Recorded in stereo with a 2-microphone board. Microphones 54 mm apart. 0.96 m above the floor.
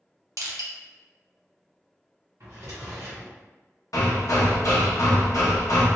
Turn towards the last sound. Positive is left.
turn(degrees=75)  # may be behind; listen again after turning